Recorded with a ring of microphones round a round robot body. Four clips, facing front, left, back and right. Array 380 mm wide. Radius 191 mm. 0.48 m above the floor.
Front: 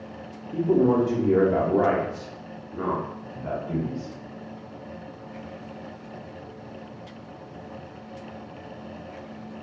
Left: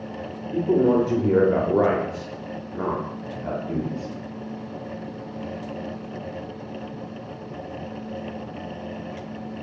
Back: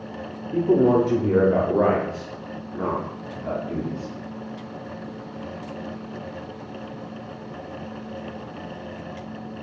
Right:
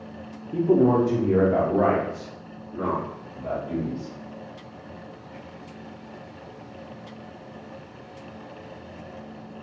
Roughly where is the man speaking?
Behind right.